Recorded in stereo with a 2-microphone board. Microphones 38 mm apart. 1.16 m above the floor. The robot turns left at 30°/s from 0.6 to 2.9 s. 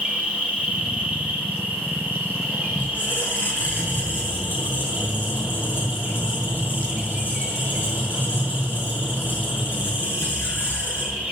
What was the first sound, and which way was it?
An insect, 45° right.